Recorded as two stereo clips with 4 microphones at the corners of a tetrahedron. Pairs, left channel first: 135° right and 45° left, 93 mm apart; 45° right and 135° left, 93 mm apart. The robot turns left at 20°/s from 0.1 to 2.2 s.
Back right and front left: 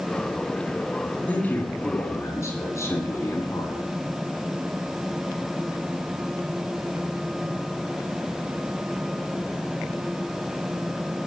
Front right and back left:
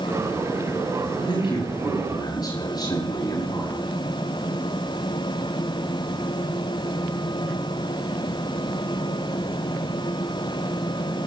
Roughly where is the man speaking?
Ahead right.